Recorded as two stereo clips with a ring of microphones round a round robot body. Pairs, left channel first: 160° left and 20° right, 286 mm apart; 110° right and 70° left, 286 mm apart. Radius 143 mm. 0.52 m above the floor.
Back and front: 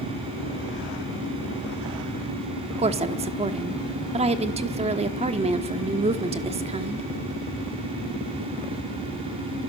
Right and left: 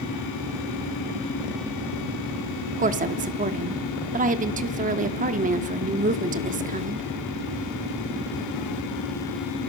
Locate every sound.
2.8 s a woman speaking: 30° left, 1.0 m